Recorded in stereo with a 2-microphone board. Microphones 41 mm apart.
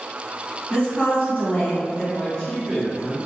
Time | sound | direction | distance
0.7 | a woman speaking | 35° left (ahead or behind) | 1.4 m
2.1 | a man speaking | 15° left (ahead or behind) | 1.0 m